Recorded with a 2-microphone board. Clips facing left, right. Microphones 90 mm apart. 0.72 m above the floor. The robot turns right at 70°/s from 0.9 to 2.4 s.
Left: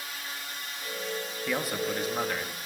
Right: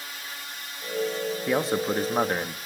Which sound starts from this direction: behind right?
A man speaking, at 1.5 s.